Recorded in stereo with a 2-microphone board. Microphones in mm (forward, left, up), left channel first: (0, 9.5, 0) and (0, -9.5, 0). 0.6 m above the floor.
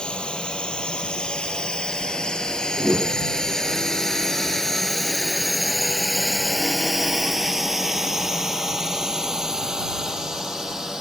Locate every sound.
0.0 s a drone: 70° left (ahead or behind); by 11.0 s 40° right (ahead or behind)
2.8 s a whoosh: 25° left (ahead or behind)